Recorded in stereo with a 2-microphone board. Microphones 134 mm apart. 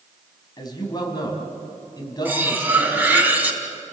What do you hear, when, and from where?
0.6 s a man speaking: 30° left (ahead or behind), 4.5 m
2.2 s cutlery clinking: 10° right (ahead or behind), 2.5 m